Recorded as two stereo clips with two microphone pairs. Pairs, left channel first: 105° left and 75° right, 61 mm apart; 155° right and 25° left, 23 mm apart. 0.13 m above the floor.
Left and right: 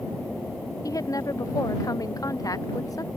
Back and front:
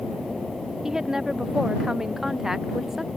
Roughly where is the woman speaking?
Left.